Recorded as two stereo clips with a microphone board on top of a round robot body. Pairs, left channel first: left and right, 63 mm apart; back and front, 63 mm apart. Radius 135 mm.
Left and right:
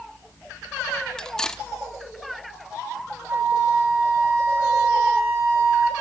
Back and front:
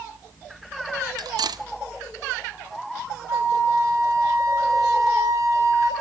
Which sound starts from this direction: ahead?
Cutlery clinking, at 1.2 s.